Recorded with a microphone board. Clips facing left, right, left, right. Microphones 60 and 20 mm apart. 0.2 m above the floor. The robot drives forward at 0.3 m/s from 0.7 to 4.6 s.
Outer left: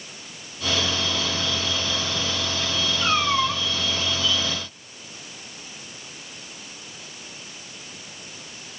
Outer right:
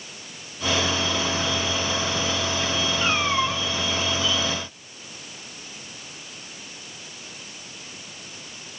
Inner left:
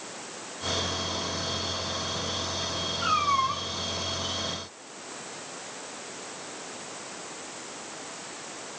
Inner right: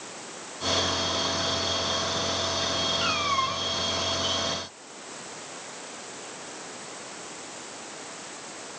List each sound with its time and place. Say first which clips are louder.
3.0 s a cat meowing: outer left 2 dB, inner left 1 dB; 35° right (ahead or behind), 2 m; by 3.6 s 40° right (ahead or behind), 1.9 m